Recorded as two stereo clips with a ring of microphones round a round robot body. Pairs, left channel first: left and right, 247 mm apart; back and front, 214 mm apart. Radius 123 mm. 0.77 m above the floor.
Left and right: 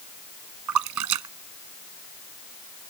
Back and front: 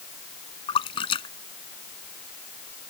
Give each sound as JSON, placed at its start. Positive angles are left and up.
{"t": 0.7, "sound": "a splash", "azimuth_deg": -110}